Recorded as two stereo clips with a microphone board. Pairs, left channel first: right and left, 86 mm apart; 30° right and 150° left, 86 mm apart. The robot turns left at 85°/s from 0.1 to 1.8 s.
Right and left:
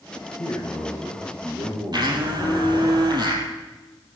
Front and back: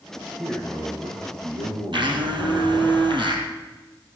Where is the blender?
130° left, 3.5 m.